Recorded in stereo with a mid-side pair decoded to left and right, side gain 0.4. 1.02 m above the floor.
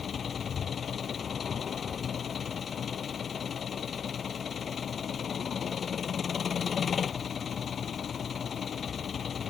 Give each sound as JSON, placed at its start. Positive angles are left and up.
{"t": 0.0, "sound": "an engine running", "azimuth_deg": 50}